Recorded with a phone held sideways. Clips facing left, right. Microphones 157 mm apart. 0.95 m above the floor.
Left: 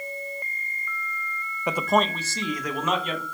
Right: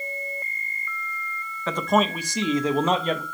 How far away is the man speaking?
About 0.6 m.